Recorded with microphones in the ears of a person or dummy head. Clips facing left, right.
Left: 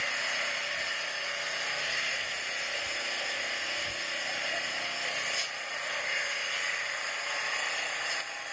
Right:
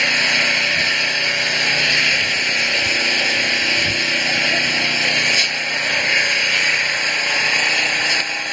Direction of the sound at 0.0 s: 85° right.